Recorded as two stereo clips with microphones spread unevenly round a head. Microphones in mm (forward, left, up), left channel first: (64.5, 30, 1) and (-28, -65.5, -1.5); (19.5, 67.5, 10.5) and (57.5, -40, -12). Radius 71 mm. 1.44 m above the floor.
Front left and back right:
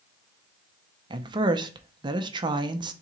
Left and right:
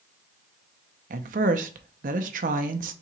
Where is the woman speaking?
80° right, 0.6 m.